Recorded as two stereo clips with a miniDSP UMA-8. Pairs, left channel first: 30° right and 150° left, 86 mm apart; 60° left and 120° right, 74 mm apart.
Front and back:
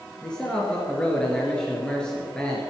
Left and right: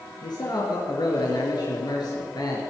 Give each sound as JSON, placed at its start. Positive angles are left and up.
{"t": 0.2, "sound": "a man speaking", "azimuth_deg": 50, "distance_m": 3.0}